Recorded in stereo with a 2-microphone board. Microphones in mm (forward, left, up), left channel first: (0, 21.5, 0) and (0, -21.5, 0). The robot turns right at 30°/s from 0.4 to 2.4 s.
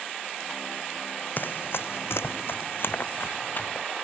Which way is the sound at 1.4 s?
50° left (ahead or behind).